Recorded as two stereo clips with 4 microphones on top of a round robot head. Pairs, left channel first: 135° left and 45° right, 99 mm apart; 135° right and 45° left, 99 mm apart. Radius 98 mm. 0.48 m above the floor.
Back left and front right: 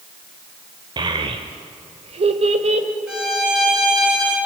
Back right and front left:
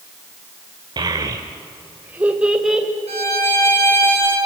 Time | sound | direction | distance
1.0 | a child speaking | straight ahead | 1.3 m
3.1 | a violin | 40° left | 7 m